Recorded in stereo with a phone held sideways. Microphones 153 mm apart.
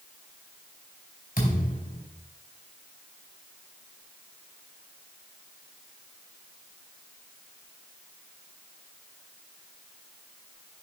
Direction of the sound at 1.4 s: 70° left (ahead or behind).